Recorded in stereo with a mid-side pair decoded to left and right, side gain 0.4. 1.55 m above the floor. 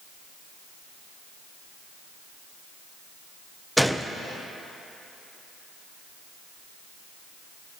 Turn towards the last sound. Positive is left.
turn(degrees=0)